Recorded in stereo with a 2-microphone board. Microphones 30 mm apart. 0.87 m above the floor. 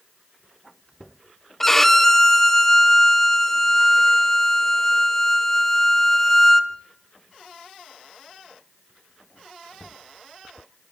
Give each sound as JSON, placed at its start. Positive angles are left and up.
{"t": 1.6, "sound": "a violin", "side_deg": 10, "distance_m": 1.0}